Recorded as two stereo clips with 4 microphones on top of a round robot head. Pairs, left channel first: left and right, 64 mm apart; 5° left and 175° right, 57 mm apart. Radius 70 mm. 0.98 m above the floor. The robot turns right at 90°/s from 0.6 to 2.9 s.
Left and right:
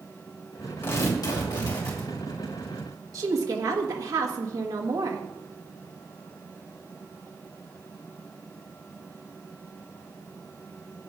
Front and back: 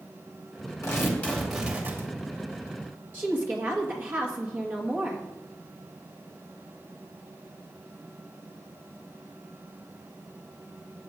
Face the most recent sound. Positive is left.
turn(degrees=-120)